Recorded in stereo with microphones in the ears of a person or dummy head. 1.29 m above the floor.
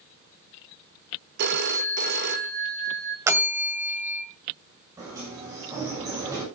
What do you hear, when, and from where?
1.4 s a phone ringing: 60° right (ahead or behind), 1.1 m
3.3 s a bell: 10° right (ahead or behind), 2 m
5.0 s a sliding door: 20° right (ahead or behind), 8 m